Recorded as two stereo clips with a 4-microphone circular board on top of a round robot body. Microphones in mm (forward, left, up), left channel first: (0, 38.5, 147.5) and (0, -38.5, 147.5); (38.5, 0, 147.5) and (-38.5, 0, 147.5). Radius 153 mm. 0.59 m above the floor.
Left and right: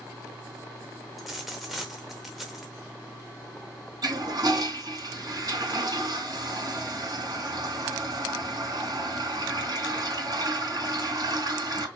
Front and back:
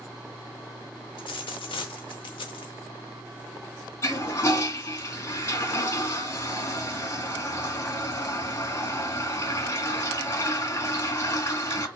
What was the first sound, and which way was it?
A dropped coin, straight ahead.